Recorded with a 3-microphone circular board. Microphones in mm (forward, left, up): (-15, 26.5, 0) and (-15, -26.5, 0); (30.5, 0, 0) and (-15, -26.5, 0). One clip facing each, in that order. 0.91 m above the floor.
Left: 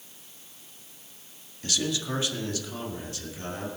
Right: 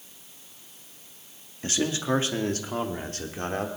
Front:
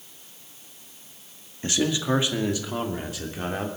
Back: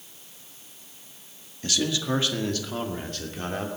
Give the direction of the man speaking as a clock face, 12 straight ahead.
1 o'clock.